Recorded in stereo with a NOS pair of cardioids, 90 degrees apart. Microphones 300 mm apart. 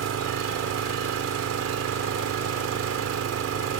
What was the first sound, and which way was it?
An engine running, 55° right.